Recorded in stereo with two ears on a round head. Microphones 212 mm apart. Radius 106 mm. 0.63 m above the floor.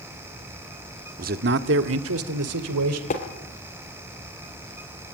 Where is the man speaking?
35° right (ahead or behind), 1.3 m; by 3.0 s 75° right (ahead or behind), 3 m.